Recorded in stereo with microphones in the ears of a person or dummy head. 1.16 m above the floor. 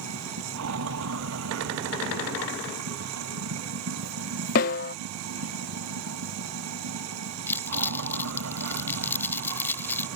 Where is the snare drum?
45° left (ahead or behind).